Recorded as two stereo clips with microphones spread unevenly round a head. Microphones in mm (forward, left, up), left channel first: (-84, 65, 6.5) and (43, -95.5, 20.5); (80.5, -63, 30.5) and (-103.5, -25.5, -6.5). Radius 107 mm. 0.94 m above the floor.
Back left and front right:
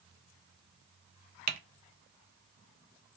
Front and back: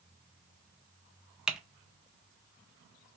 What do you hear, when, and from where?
1.5 s typing on a keyboard: 105° right, 0.5 m